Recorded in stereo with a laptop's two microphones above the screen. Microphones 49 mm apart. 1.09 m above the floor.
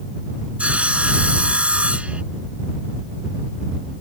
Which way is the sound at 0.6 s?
25° right (ahead or behind).